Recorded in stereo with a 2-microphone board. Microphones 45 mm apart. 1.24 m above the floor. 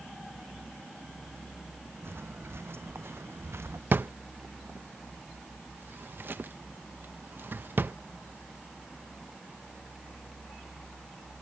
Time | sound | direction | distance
2.0 | footsteps | 60° right (ahead or behind) | ?
3.9 | a drawer | 50° right (ahead or behind) | ?